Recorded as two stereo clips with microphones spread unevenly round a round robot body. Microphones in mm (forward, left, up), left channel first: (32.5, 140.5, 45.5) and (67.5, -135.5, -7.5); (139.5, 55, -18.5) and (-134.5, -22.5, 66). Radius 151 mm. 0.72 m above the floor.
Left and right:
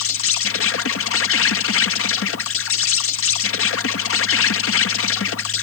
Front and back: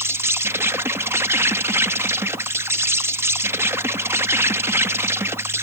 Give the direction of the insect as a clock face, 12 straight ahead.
9 o'clock.